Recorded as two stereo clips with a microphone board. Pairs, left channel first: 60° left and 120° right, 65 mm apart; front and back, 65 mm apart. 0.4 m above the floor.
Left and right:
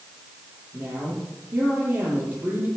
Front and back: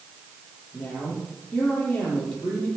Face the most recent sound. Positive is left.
turn(degrees=-55)